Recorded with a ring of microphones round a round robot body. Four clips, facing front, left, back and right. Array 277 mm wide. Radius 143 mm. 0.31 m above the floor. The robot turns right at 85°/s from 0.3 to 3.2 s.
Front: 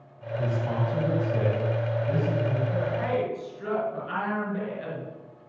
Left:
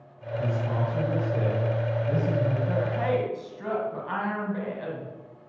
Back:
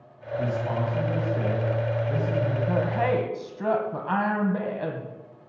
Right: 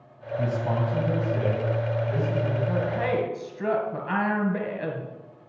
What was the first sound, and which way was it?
A man speaking, 105° right.